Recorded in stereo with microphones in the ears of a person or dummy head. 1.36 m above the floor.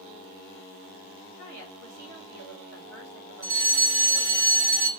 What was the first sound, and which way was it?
A woman speaking, 75° right (ahead or behind).